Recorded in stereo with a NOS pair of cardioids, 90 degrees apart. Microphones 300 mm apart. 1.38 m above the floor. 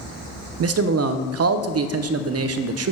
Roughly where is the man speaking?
Ahead right.